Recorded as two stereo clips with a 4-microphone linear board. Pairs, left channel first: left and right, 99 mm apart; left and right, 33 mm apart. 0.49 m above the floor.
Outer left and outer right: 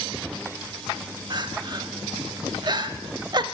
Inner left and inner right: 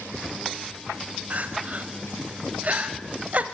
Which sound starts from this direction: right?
Crying, at 1.3 s.